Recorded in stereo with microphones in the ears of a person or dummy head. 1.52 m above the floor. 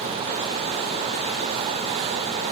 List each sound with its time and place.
Only background noise.